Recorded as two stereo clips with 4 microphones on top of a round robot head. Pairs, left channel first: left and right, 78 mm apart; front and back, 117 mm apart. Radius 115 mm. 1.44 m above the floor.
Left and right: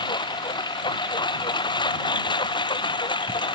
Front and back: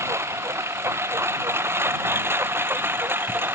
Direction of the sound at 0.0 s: 110° left.